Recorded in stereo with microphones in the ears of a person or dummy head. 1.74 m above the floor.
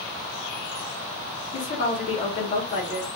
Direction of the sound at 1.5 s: 50° left (ahead or behind).